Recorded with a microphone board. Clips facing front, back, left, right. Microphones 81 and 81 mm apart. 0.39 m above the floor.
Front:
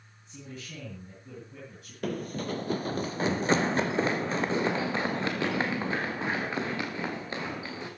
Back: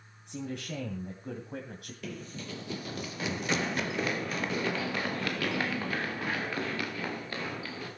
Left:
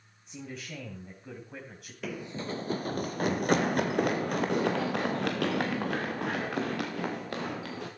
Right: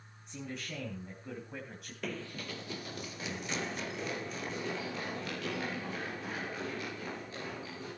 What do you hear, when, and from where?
0.3 s a man speaking: straight behind, 2.5 m
2.0 s running footsteps: 5° left, 0.5 m; by 7.9 s 70° left, 4.5 m